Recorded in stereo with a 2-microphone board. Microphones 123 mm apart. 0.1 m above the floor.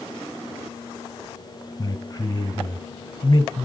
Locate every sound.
1.8 s a man speaking: 30° left (ahead or behind), 1.6 m